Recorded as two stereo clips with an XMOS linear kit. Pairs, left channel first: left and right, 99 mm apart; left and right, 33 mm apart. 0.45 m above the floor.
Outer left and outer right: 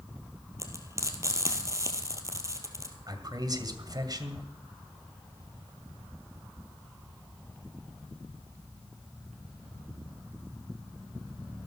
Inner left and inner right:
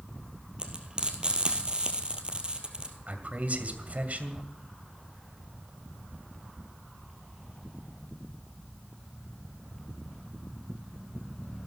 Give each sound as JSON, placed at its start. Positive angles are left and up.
{"t": 0.6, "sound": "frying", "side_deg": -30, "distance_m": 2.0}
{"t": 3.1, "sound": "a man speaking", "side_deg": -45, "distance_m": 2.0}